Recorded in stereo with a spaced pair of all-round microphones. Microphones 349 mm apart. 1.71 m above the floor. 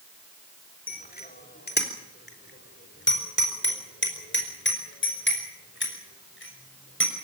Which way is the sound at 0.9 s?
25° left (ahead or behind).